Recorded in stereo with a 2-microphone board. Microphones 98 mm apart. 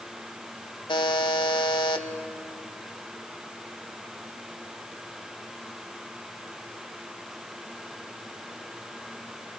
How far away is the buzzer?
About 1.2 m.